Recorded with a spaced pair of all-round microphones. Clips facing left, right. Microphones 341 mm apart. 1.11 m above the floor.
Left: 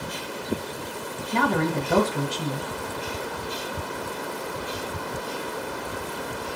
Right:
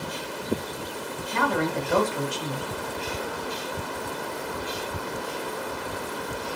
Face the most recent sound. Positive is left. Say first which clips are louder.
# left 2 dB
turn(degrees=50)  # may be behind; listen again after turning